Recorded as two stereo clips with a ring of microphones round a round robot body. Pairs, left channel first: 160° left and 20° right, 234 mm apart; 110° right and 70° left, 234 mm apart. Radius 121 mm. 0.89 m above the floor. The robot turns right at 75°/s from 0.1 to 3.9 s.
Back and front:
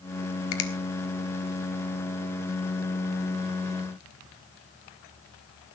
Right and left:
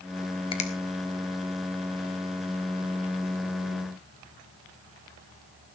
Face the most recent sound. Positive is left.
turn(degrees=75)